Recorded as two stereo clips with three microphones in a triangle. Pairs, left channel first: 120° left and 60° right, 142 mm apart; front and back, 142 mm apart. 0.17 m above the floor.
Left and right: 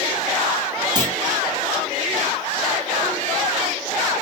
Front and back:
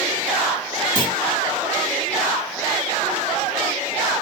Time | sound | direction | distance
0.9 | a clunk | 25° right | 1.7 m